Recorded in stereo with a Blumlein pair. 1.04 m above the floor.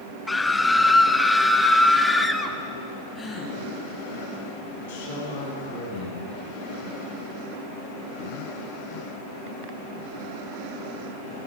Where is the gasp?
20° left, 6 m.